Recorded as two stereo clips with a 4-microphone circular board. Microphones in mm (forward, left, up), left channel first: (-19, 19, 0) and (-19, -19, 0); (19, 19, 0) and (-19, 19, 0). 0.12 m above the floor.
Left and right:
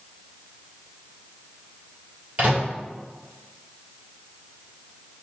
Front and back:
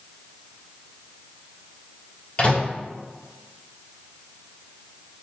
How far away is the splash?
No splash in this recording.